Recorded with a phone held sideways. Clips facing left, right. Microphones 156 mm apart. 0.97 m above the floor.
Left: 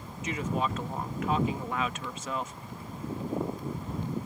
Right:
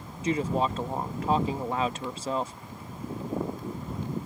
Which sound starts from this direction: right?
A woman speaking, at 0.2 s.